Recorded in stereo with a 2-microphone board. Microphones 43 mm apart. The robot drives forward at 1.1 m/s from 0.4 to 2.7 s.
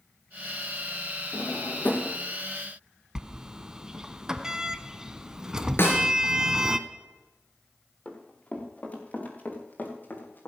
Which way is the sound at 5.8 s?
55° left (ahead or behind).